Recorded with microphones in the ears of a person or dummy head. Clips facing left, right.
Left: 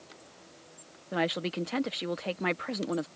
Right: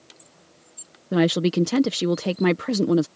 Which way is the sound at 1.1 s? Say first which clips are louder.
Right 11 dB; 55° right (ahead or behind).